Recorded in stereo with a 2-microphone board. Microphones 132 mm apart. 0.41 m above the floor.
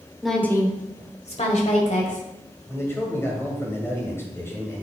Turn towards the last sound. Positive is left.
turn(degrees=20)  # may be behind; listen again after turning